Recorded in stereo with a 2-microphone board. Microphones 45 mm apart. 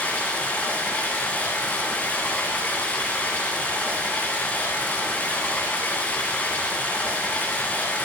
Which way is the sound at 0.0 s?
35° left (ahead or behind).